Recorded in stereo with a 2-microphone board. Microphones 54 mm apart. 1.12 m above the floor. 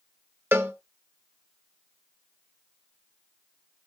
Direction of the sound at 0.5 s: 50° right (ahead or behind).